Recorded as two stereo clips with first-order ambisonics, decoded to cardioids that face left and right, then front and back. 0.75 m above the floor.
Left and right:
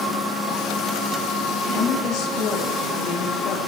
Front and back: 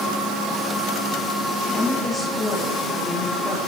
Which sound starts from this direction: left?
A woman speaking, at 1.7 s.